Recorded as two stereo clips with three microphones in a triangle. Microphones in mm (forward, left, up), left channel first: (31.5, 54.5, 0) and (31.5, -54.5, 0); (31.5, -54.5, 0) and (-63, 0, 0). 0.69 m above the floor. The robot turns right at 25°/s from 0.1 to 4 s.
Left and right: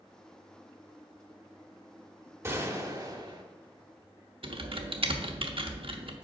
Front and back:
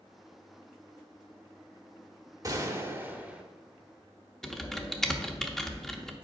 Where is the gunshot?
155° right, 0.9 m; by 3.4 s 130° right, 0.9 m.